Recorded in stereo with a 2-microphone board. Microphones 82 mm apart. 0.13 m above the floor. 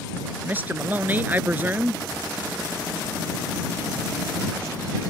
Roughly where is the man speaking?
Right.